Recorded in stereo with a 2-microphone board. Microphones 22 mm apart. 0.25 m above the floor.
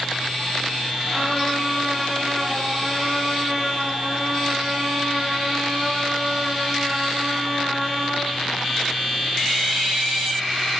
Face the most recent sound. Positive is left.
turn(degrees=-30)  # may be behind; listen again after turning